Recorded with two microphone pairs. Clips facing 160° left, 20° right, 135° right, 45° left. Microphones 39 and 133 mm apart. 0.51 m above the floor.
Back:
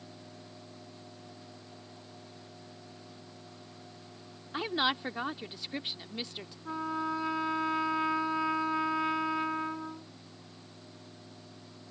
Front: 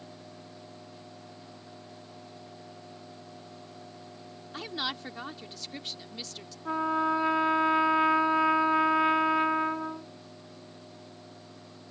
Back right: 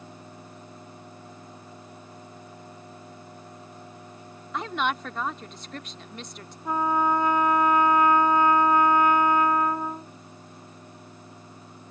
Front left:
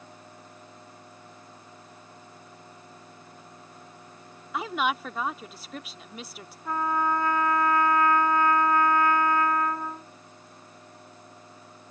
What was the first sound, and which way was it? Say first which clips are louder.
A woman speaking: back 5 dB, even; 125° left.